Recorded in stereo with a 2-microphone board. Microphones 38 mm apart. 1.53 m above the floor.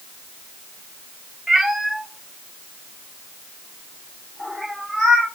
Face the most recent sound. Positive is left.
turn(degrees=10)  # may be behind; listen again after turning